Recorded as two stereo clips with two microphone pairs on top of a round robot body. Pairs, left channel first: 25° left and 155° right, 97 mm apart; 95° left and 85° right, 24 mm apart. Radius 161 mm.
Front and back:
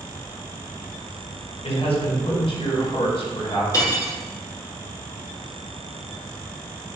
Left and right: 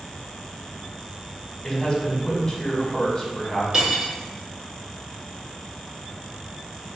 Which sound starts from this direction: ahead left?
A man speaking, at 1.6 s.